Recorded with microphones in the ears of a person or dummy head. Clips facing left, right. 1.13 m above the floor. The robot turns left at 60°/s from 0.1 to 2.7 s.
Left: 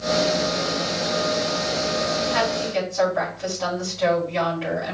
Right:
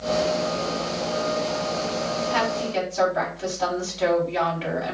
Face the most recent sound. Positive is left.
turn(degrees=-45)  # may be behind; listen again after turning